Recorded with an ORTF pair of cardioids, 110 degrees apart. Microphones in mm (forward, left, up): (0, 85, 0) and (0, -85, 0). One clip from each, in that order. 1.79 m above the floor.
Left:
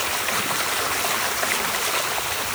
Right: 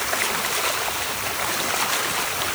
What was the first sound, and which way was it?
Only background noise.